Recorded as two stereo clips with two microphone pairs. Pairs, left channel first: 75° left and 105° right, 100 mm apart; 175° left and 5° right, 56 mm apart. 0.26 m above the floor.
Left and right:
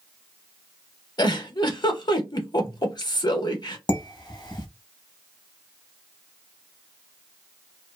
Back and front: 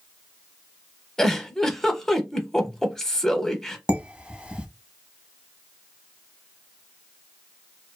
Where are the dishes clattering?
60° left, 0.8 m.